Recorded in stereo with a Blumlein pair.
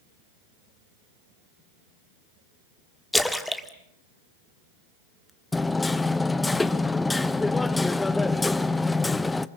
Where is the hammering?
10° left, 0.7 m.